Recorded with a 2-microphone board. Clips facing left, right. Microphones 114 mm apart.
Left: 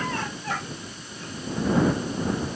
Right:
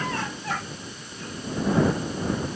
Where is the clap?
No clap in this recording.